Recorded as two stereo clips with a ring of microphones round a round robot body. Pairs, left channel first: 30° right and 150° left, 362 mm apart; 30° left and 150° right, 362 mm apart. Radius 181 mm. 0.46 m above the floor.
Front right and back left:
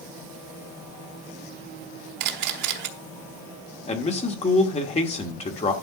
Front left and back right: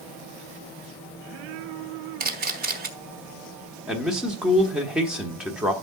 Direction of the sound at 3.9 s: 65° right.